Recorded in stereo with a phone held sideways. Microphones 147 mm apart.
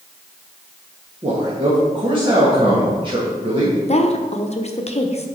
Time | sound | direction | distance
1.2 | a man speaking | 35° right (ahead or behind) | 1.7 m
3.9 | a woman speaking | 45° left (ahead or behind) | 0.8 m